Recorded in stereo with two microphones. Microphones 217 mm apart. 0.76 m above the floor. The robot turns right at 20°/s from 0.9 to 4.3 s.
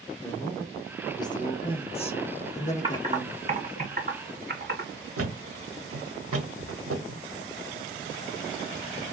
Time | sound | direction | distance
0.2 | a man speaking | 20° left | 0.8 m
2.8 | typing on a keyboard | 20° right (ahead or behind) | 1.5 m
5.2 | a thud | 85° right | 0.8 m